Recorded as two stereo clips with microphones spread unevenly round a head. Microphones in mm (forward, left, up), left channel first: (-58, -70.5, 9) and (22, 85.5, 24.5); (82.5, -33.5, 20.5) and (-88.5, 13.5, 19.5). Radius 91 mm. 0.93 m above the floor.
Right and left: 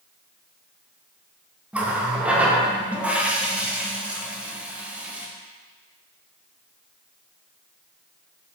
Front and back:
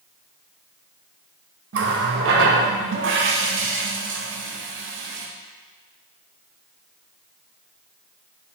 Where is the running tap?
150° left, 0.6 m.